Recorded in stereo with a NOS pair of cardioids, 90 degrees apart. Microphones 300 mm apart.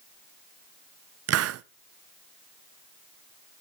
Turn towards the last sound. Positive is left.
turn(degrees=-55)